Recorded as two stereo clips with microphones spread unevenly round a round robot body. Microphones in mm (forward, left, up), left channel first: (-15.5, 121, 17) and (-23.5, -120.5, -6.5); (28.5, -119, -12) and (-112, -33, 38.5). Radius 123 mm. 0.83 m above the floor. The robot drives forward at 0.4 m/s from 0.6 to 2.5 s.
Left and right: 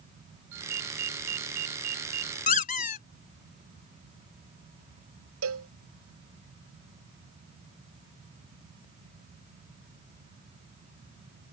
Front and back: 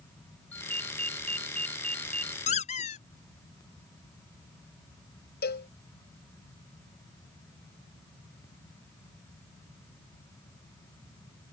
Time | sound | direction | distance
0.5 | a ringtone | 115° right | ?
2.5 | a squeak | 40° left | ?
5.4 | a cowbell | 55° right | ?